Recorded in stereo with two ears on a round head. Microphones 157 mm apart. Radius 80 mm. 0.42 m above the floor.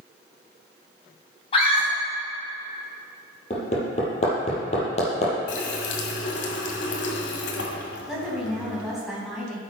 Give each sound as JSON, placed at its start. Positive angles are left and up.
{"t": 1.5, "sound": "a scream", "side_deg": 30, "distance_m": 3.0}
{"t": 3.5, "sound": "hammering", "side_deg": 35, "distance_m": 4.0}
{"t": 5.5, "sound": "a running tap", "side_deg": 75, "distance_m": 1.8}
{"t": 8.1, "sound": "a woman speaking", "side_deg": 0, "distance_m": 3.5}